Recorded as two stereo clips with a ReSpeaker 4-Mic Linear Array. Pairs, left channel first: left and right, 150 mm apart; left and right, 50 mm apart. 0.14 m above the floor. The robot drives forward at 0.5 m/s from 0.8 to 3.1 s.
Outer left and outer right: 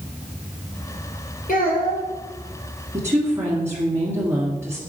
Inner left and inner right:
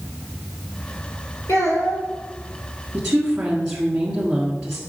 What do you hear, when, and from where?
1.5 s a child speaking: 70° left (ahead or behind), 3 m
2.9 s a woman speaking: 15° right (ahead or behind), 1.5 m